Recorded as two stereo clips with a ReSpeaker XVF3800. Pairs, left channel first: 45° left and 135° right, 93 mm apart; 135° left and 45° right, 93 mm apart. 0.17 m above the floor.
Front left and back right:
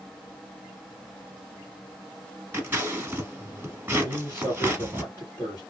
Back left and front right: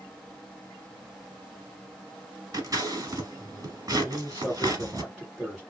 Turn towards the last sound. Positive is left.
turn(degrees=45)